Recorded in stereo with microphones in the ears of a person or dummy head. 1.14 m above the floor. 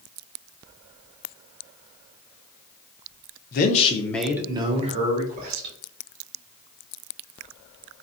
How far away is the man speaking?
About 0.6 m.